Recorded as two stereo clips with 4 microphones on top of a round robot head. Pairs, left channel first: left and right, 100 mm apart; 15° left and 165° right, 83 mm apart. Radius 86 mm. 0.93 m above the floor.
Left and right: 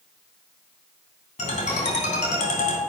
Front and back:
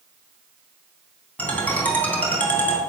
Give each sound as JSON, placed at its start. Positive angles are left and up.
{"t": 1.4, "sound": "a ringtone", "azimuth_deg": 85, "distance_m": 3.0}